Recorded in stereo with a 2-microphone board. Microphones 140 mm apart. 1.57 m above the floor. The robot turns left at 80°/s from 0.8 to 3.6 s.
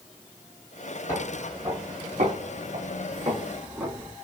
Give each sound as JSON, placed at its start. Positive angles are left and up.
{"t": 1.1, "sound": "footsteps", "side_deg": 25, "distance_m": 3.5}